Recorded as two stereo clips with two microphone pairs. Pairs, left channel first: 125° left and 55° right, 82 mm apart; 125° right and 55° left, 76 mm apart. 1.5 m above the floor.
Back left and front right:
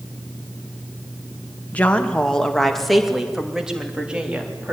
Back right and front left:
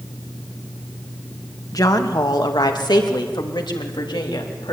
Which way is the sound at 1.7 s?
160° right.